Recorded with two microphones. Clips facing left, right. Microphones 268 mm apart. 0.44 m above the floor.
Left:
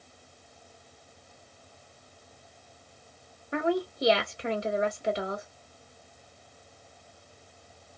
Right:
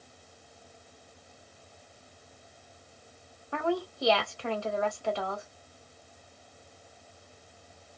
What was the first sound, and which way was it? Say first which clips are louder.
A woman speaking: left 3 dB; 20° left (ahead or behind).